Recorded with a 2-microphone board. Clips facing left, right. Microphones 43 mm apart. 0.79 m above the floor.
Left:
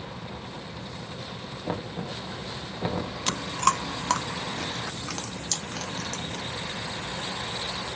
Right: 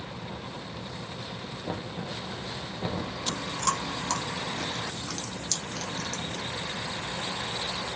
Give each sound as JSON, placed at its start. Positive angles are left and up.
{"t": 1.7, "sound": "knocking", "side_deg": 25, "distance_m": 0.7}
{"t": 3.3, "sound": "chewing", "side_deg": 65, "distance_m": 0.7}